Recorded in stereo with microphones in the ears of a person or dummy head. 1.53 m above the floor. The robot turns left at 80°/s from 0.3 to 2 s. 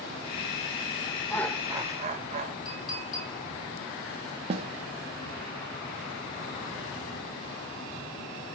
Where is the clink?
20° left (ahead or behind), 6.5 m.